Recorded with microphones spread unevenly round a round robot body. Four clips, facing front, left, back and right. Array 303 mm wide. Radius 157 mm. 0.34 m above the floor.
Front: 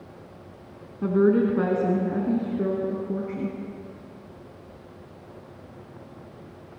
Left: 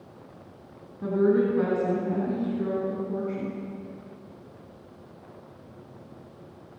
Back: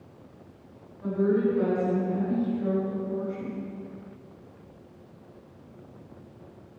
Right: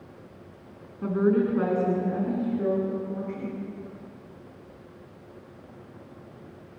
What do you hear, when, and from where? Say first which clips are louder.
1.0 s a woman speaking: left 1 dB, front 4 dB; straight ahead, 3.5 m; by 3.6 s 15° left, 6 m